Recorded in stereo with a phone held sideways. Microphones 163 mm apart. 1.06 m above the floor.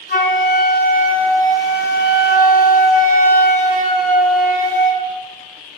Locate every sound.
0.1 s a flute: 60° left (ahead or behind), 1.1 m